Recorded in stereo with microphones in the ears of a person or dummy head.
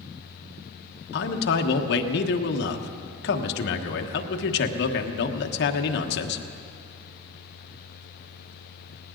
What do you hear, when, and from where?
1.1 s a man speaking: 65° left (ahead or behind), 1.3 m